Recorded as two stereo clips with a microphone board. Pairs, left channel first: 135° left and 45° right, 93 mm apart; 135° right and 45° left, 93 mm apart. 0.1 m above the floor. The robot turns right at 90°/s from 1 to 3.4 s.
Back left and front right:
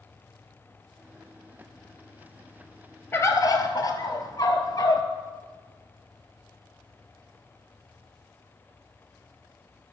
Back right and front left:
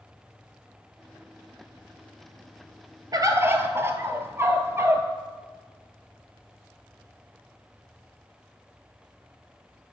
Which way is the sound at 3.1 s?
75° left.